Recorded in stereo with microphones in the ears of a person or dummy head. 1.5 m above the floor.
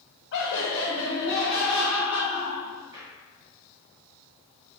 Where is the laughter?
60° left (ahead or behind), 0.9 m; by 3.1 s 20° right (ahead or behind), 2.5 m.